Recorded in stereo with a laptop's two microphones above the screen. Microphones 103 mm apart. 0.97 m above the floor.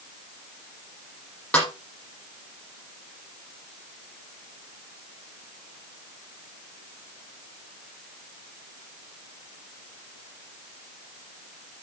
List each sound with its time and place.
1.5 s a snare drum: 10° left (ahead or behind), 6.5 m